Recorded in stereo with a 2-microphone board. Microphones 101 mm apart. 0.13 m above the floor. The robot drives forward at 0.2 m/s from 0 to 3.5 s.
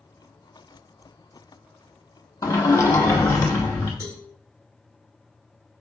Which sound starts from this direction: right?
A cowbell, at 4.0 s.